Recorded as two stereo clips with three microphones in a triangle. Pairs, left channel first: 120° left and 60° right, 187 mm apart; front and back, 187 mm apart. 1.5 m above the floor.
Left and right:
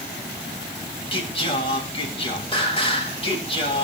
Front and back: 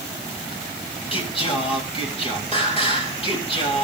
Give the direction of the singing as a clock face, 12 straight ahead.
10 o'clock.